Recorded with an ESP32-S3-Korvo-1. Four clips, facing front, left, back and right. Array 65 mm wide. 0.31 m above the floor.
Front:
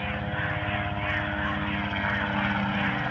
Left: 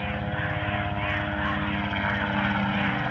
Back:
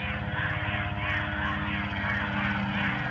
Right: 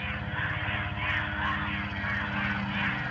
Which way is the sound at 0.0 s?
60° left.